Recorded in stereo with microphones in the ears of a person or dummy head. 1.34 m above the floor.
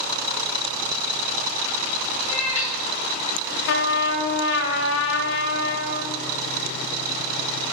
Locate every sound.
2.3 s a cat meowing: 45° left (ahead or behind), 2 m
3.7 s a trumpet: 75° left (ahead or behind), 1.0 m